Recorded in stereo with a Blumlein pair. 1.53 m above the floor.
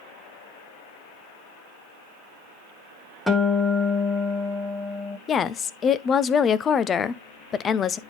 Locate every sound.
3.3 s a guitar: straight ahead, 1.6 m
5.3 s a woman speaking: 25° left, 0.6 m